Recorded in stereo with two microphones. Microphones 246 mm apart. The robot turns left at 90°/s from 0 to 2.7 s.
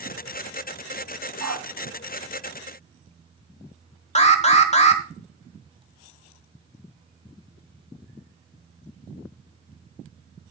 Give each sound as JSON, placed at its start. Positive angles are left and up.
{"t": 1.4, "sound": "a dog barking", "side_deg": -80, "distance_m": 1.3}
{"t": 4.2, "sound": "an alarm", "side_deg": 25, "distance_m": 1.2}